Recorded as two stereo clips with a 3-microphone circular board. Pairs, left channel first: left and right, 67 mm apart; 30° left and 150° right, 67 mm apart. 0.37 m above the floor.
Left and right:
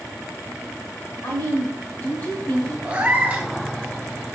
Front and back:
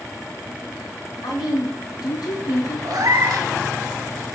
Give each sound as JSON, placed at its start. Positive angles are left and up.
{"t": 1.2, "sound": "a woman speaking", "azimuth_deg": 40, "distance_m": 2.5}
{"t": 2.9, "sound": "a cat meowing", "azimuth_deg": -160, "distance_m": 0.9}